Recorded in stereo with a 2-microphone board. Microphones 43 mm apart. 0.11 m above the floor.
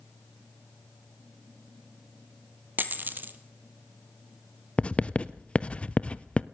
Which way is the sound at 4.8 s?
30° left (ahead or behind).